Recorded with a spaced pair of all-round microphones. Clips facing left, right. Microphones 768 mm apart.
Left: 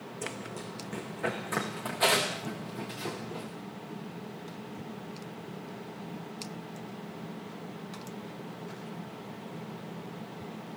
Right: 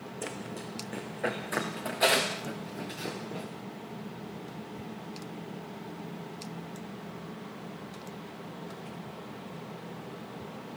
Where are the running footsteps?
40° left (ahead or behind), 4 m; by 3.5 s 35° left (ahead or behind), 7 m.